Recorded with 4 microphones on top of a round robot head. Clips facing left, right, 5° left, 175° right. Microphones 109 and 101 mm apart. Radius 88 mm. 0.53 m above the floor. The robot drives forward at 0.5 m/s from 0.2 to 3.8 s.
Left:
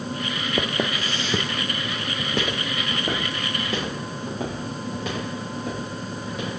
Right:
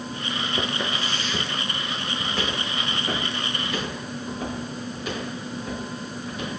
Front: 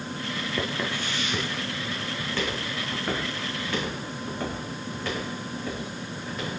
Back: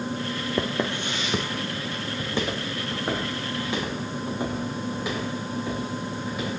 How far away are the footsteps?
About 0.5 m.